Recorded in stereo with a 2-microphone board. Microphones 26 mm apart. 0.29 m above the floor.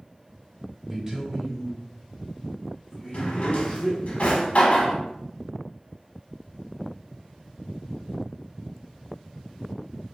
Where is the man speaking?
20° right (ahead or behind), 1.1 m; by 4.0 s 30° left (ahead or behind), 1.4 m.